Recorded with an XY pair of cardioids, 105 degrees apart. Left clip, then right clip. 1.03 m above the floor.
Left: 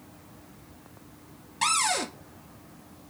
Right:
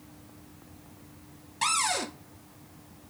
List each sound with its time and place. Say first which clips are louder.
1.6 s a cupboard door: left 2 dB; 15° left, 0.5 m